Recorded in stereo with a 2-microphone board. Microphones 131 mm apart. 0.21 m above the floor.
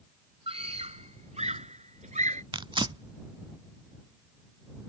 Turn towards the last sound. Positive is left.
turn(degrees=-40)  # may be behind; listen again after turning